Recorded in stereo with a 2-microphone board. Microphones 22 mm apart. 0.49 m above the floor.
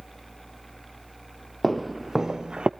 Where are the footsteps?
Centre (ahead or behind), 0.8 m; by 2.7 s 50° right (ahead or behind), 0.6 m.